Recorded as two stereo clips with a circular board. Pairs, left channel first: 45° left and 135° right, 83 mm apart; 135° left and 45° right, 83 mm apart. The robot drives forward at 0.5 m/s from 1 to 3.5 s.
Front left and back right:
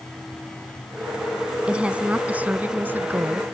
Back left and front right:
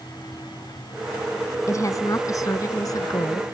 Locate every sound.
1.7 s a woman speaking: 150° left; by 3.4 s 165° left